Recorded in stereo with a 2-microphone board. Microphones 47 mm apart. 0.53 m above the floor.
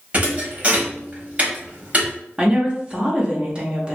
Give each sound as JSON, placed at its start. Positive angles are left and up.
{"t": 0.1, "sound": "a thud", "side_deg": -30, "distance_m": 0.8}
{"t": 2.4, "sound": "a woman speaking", "side_deg": -25, "distance_m": 0.7}